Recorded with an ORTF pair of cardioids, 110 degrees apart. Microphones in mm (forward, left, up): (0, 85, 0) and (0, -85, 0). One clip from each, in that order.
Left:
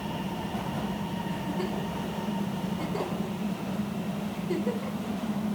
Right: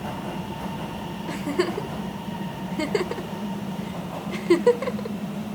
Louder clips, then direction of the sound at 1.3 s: Right 10 dB; 70° right.